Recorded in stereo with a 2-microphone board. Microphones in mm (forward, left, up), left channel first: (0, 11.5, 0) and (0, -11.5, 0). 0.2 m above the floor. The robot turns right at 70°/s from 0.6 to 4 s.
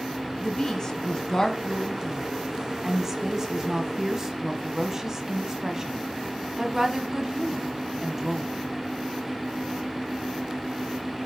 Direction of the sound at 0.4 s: 20° left (ahead or behind).